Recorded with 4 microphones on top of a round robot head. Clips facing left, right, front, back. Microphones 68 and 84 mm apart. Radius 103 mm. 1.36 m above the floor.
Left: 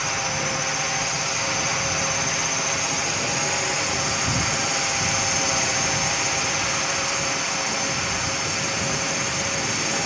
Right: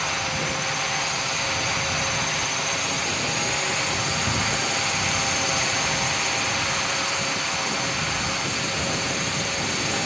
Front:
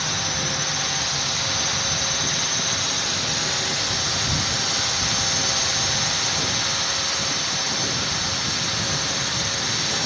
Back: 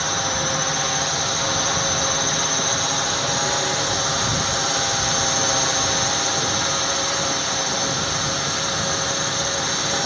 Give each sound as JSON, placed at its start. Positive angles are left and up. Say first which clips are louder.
{"t": 0.0, "sound": "a drone", "louder": "even, back 4 dB", "azimuth_deg": 170}